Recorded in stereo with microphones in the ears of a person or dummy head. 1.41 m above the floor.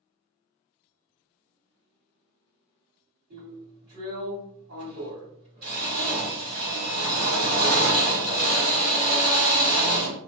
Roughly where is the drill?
Right.